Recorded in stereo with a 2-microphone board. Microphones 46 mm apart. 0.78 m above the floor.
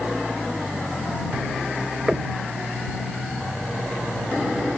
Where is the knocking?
20° right (ahead or behind).